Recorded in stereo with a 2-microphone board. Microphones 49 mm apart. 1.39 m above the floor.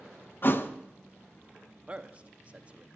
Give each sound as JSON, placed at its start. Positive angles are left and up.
{"t": 0.4, "sound": "a thud", "side_deg": 45, "distance_m": 0.8}
{"t": 1.9, "sound": "a man speaking", "side_deg": -25, "distance_m": 0.9}